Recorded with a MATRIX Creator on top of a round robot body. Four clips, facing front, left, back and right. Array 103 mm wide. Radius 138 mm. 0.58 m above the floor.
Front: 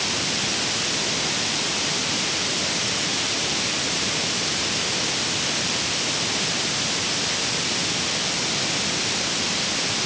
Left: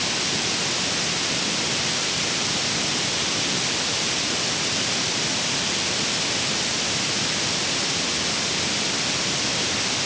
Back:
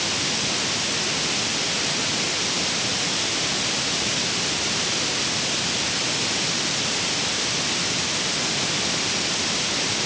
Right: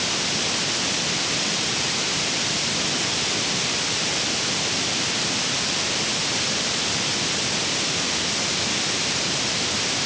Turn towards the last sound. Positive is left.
No sound to turn to.